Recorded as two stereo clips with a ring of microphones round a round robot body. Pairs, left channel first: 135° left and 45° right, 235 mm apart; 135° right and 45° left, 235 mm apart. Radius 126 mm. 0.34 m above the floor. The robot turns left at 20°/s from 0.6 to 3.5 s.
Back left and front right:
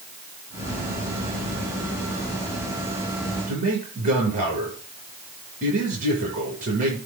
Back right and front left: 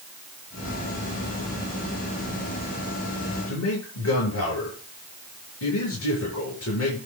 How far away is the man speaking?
About 8 m.